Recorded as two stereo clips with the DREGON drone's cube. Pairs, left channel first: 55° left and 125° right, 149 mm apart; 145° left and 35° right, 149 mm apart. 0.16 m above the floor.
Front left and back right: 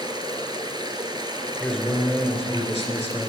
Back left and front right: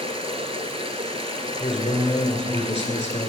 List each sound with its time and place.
0.0 s running water: 70° right, 1.0 m
1.6 s a man speaking: 140° left, 1.8 m